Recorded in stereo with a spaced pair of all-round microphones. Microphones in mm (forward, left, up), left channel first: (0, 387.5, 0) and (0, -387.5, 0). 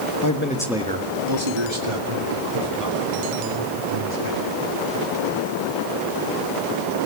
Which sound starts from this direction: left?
A man speaking, at 0.2 s.